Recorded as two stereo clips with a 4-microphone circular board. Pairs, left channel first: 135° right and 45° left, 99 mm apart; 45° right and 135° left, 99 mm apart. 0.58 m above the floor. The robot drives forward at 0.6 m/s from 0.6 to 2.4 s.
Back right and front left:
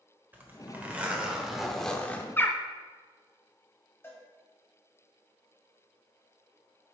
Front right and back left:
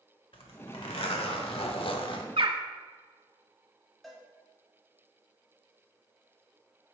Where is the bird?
155° left, 0.7 m.